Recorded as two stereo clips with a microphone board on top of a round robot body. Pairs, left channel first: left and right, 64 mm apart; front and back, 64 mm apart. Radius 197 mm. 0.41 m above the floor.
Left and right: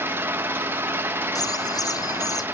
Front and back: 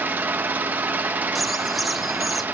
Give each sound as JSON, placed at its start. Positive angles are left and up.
{"t": 0.0, "sound": "an engine running", "azimuth_deg": -130, "distance_m": 1.2}
{"t": 1.4, "sound": "a bird", "azimuth_deg": 90, "distance_m": 0.6}